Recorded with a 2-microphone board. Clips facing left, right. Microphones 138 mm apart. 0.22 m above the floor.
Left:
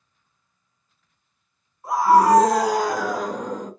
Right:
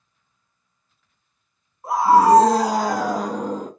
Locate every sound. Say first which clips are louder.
1.8 s a scream: right 1 dB; 25° right (ahead or behind), 1.9 m; by 3.7 s 35° right (ahead or behind), 1.4 m